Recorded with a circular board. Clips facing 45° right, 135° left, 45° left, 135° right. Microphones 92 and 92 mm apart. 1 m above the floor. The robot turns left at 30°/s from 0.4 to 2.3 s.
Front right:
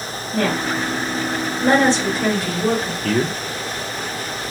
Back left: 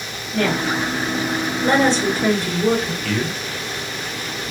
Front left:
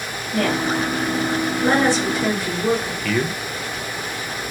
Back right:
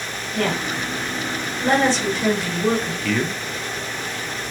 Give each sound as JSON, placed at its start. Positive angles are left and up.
{"t": 0.3, "sound": "a woman speaking", "azimuth_deg": 15, "distance_m": 1.6}
{"t": 3.0, "sound": "a man speaking", "azimuth_deg": -50, "distance_m": 0.5}